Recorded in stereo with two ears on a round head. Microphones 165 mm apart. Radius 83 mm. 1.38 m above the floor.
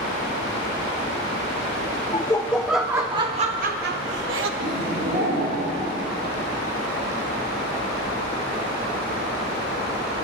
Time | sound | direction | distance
2.1 | laughter | 20° left (ahead or behind) | 1.0 m
4.6 | laughter | 55° right (ahead or behind) | 6 m